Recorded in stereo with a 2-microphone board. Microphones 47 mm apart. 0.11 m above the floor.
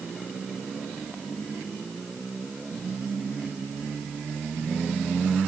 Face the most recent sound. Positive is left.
No sound to turn to.